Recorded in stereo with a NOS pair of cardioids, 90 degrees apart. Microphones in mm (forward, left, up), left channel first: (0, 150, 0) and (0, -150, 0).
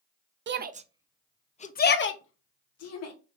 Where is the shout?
40° right, 0.7 m; by 3.1 s 60° left, 1.3 m.